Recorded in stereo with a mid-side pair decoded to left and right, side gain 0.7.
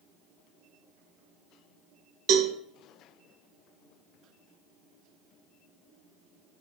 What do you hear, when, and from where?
2.3 s a cowbell: 55° right, 0.8 m